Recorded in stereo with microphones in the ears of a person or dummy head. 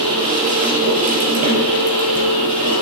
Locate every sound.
0.0 s a machine running: 50° right (ahead or behind), 4 m